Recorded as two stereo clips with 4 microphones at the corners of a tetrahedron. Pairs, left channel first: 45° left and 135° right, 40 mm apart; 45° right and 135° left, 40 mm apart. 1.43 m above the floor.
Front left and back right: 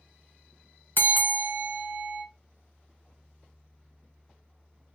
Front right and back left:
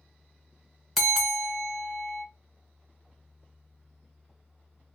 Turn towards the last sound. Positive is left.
turn(degrees=45)